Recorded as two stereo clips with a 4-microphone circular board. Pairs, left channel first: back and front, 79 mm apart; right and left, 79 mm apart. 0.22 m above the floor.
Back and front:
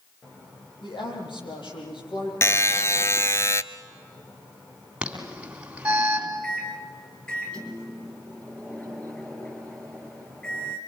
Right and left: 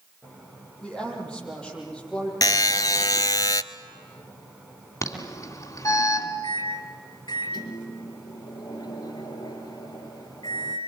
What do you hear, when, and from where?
0.8 s a woman speaking: 170° right, 8.5 m
2.4 s a buzzer: 125° right, 0.6 m
5.0 s an alarm: 75° right, 3 m
6.4 s a microwave: 105° right, 4 m